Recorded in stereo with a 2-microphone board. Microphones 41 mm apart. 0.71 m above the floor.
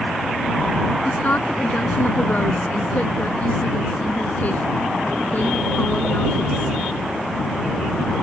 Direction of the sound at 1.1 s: 45° left (ahead or behind).